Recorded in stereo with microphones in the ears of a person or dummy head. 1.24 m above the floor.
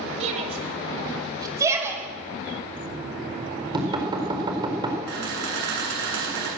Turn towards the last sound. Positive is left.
turn(degrees=-60)  # may be behind; listen again after turning